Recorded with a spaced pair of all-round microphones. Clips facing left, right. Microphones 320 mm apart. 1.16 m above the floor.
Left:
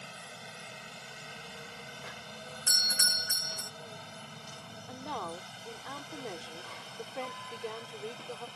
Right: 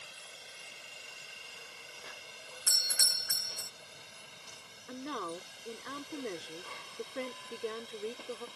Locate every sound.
0.0 s a helicopter: 70° left (ahead or behind)
2.7 s a doorbell: 15° left (ahead or behind)
4.9 s a woman speaking: 20° right (ahead or behind)